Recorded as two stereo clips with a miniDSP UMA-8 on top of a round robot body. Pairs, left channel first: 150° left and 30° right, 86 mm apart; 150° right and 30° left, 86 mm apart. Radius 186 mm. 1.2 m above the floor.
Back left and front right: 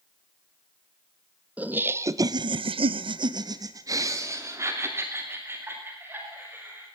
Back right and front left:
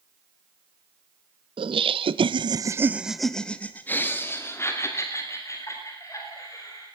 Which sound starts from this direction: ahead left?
Laughter, at 1.6 s.